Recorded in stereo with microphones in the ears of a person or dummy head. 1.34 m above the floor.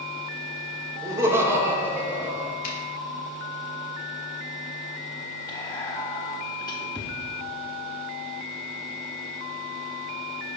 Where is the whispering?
20° left (ahead or behind), 1.0 m.